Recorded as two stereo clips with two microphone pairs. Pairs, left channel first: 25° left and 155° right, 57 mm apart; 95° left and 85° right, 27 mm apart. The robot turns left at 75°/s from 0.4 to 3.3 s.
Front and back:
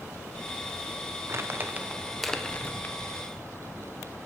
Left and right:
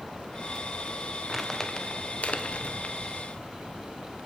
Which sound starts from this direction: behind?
Crumpling, at 1.3 s.